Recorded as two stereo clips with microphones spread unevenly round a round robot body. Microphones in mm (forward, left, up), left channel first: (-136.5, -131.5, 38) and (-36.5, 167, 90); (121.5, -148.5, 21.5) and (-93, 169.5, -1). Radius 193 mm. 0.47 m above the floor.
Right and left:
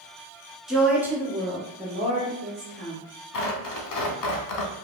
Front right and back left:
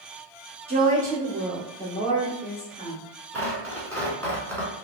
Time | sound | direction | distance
0.7 | a woman speaking | 175° left | 0.9 m
3.3 | tearing paper | 140° right | 0.7 m